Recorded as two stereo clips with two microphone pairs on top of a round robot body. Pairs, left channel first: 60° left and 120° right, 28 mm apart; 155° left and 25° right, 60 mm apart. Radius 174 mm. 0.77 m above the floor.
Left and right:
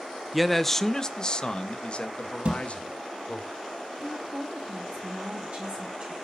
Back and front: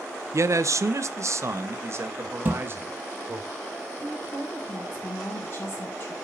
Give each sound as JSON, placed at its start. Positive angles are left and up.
{"t": 0.3, "sound": "a man speaking", "azimuth_deg": -35, "distance_m": 0.8}
{"t": 2.5, "sound": "a thud", "azimuth_deg": -85, "distance_m": 3.5}
{"t": 4.0, "sound": "a woman speaking", "azimuth_deg": -160, "distance_m": 4.5}